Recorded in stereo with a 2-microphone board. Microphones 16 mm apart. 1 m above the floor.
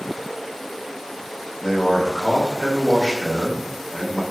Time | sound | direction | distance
1.6 | a man speaking | 35° left (ahead or behind) | 1.0 m